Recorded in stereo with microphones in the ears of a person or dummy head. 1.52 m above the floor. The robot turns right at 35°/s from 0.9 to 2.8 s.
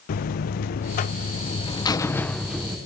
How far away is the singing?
I don't hear singing.